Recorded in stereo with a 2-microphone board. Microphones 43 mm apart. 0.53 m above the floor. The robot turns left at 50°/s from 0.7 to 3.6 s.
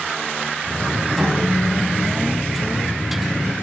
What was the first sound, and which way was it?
A snare drum, straight behind.